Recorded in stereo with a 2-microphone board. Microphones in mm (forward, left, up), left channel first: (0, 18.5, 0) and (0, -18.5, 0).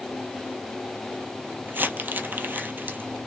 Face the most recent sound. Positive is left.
turn(degrees=-65)  # may be behind; listen again after turning